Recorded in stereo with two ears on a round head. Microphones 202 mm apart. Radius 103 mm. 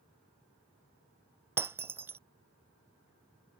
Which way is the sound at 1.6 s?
10° right (ahead or behind).